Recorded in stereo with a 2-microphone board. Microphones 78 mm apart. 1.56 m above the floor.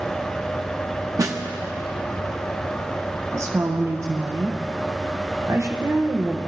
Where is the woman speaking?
35° right (ahead or behind), 1.0 m.